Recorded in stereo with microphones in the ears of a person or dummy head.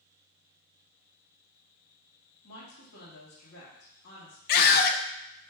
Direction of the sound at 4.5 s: 55° left (ahead or behind).